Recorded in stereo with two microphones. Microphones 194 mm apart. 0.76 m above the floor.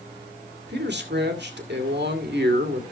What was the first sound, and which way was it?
A man speaking, 65° right (ahead or behind).